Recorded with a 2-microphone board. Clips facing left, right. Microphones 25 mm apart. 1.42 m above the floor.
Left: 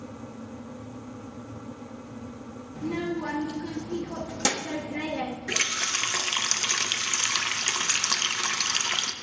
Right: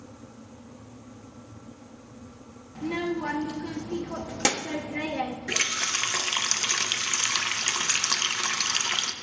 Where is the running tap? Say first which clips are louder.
Even; 5° right (ahead or behind), 0.6 m.